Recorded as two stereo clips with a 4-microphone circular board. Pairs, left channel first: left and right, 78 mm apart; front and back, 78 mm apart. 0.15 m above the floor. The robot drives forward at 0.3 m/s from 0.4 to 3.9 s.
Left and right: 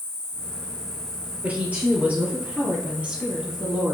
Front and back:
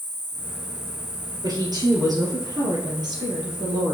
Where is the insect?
170° left, 3.5 m.